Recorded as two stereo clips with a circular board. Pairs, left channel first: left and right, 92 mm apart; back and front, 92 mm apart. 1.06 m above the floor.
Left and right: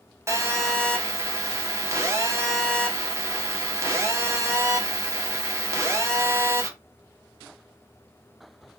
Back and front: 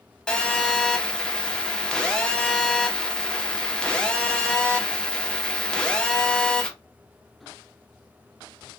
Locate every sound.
0.3 s a phone buzzing: 105° right, 0.6 m